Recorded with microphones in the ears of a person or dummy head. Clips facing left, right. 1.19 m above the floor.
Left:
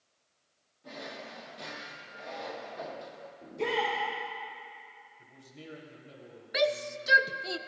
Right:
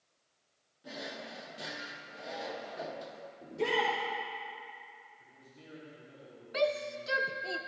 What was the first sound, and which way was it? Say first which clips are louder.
A drawer: even; 10° right (ahead or behind).